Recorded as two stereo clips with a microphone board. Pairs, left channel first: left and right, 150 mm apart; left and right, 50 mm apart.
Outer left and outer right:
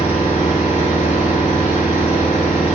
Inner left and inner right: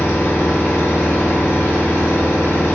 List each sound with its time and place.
0.0 s an engine running: 60° left (ahead or behind), 1.3 m